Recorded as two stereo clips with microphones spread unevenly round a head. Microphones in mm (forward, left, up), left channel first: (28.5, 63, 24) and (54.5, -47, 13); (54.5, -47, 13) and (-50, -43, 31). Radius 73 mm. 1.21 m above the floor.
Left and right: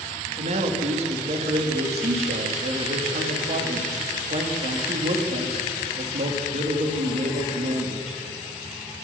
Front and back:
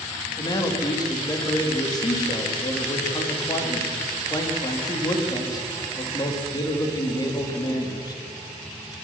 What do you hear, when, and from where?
0.4 s a man speaking: 50° right, 2.5 m